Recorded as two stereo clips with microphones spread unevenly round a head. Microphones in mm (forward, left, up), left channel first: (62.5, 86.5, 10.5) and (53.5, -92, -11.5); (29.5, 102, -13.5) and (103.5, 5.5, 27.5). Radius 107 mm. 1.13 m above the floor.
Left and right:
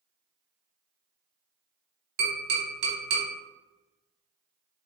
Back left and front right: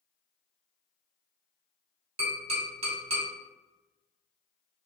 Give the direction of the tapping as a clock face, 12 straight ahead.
2 o'clock.